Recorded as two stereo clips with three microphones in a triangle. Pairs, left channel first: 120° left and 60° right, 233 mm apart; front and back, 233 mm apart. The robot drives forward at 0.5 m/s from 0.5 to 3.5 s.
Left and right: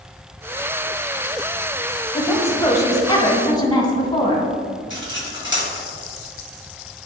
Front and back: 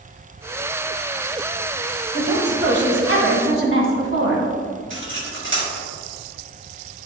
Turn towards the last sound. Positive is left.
turn(degrees=150)